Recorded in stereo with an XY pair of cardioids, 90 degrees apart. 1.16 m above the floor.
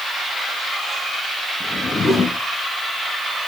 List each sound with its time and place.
1.6 s a whoosh: 45° left, 1.7 m